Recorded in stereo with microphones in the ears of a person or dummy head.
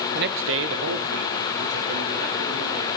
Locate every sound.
0.1 s a man speaking: 45° right (ahead or behind), 0.6 m; by 2.9 s 65° right (ahead or behind), 4 m